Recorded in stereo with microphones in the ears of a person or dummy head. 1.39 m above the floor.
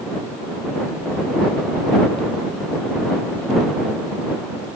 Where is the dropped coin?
No dropped coin in this recording.